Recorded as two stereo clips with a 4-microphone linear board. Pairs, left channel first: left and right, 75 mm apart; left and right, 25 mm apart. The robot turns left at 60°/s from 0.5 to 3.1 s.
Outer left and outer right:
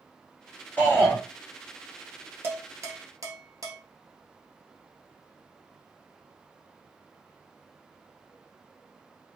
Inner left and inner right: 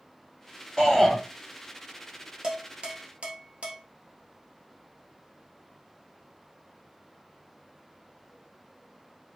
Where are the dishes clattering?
30° right (ahead or behind), 1.4 m; by 3.8 s 50° right (ahead or behind), 1.4 m.